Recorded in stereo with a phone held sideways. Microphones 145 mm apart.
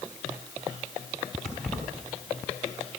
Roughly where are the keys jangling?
Centre.